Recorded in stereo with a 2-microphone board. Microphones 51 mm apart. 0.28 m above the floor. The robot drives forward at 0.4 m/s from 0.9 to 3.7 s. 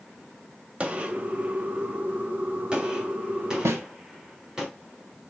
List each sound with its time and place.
0.8 s a gunshot: 25° right (ahead or behind), 0.5 m; by 4.7 s 10° right (ahead or behind), 1.0 m
3.6 s a snare drum: 70° right (ahead or behind), 0.6 m